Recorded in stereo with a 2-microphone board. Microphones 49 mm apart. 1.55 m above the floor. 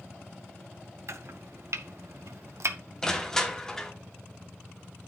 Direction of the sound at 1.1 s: 65° right (ahead or behind).